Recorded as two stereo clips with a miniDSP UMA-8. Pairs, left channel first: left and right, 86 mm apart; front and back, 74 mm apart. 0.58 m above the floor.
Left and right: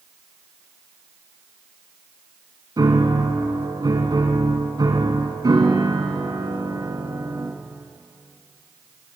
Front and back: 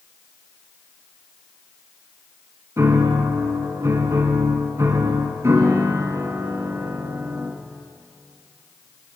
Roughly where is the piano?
Behind right.